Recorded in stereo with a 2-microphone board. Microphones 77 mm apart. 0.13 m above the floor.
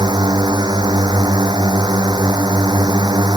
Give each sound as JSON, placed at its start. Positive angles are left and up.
{"t": 0.0, "sound": "a drone", "side_deg": -65}